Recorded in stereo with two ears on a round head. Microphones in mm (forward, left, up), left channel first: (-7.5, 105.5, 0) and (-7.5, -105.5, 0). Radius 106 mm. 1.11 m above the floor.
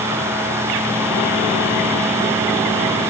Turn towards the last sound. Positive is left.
No sound to turn to.